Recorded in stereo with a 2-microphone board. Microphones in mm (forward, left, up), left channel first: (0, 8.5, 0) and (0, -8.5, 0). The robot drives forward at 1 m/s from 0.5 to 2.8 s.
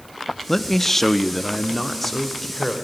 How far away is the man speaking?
About 0.6 m.